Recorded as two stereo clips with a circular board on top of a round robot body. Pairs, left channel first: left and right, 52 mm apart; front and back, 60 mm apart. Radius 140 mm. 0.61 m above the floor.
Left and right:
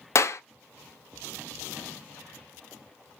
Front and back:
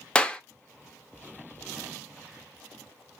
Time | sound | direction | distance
0.1 | a clap | 70° left | 0.6 m